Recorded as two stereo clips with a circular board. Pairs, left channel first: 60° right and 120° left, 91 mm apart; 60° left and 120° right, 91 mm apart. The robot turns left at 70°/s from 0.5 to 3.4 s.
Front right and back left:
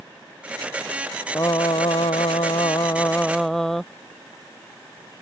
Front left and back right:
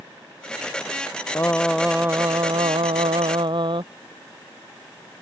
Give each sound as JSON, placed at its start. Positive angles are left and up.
{"t": 1.4, "sound": "singing", "azimuth_deg": -5}